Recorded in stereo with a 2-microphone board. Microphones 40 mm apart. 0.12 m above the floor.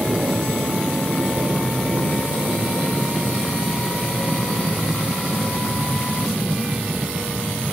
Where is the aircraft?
40° right (ahead or behind); by 7.7 s 45° right (ahead or behind).